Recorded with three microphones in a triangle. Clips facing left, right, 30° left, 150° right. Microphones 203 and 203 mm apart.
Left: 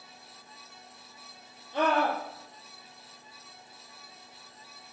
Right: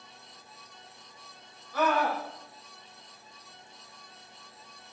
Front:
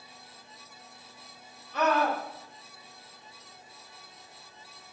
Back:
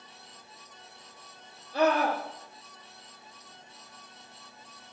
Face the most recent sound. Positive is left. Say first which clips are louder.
# left 1 dB, back 2 dB
turn(degrees=155)